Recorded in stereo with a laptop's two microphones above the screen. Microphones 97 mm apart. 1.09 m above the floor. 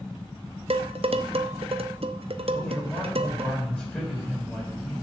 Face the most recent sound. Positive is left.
turn(degrees=15)  # may be behind; listen again after turning